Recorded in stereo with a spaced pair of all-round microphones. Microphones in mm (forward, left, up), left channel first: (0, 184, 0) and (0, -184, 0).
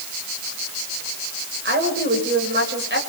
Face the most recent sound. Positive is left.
turn(degrees=-30)  # may be behind; listen again after turning